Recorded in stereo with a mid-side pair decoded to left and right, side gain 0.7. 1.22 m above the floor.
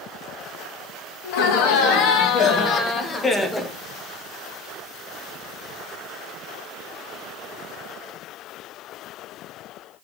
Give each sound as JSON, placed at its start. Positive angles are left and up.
{"t": 1.2, "sound": "laughter", "azimuth_deg": 70, "distance_m": 1.7}